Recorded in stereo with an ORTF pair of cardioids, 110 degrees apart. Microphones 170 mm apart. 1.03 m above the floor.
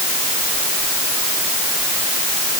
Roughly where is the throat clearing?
No throat clearing in this recording.